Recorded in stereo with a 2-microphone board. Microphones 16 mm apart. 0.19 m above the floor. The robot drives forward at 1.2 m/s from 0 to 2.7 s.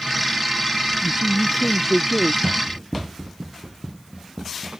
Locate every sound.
1.0 s a man speaking: 50° right (ahead or behind); by 2.3 s 30° right (ahead or behind)
2.4 s running footsteps: 60° right (ahead or behind); by 4.8 s 45° right (ahead or behind)